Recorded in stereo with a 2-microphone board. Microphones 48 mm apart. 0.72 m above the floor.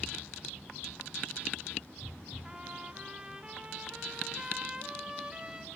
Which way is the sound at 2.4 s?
20° right (ahead or behind).